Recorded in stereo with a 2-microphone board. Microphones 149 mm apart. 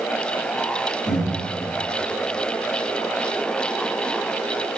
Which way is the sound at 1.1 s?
50° left (ahead or behind).